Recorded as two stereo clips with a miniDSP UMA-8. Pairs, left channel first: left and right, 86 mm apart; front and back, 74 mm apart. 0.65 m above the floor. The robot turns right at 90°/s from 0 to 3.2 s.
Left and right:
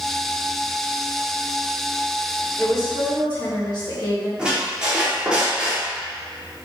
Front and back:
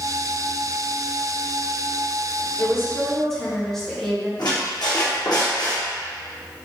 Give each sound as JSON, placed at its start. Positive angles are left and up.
{"t": 2.6, "sound": "a woman speaking", "azimuth_deg": 25, "distance_m": 1.1}
{"t": 4.4, "sound": "a squeak", "azimuth_deg": -10, "distance_m": 0.9}